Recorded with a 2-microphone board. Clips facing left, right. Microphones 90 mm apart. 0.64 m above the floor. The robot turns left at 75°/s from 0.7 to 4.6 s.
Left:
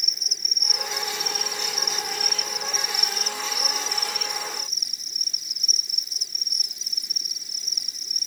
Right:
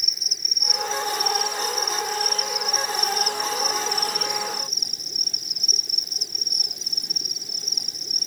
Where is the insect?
175° right; by 8.3 s 110° right.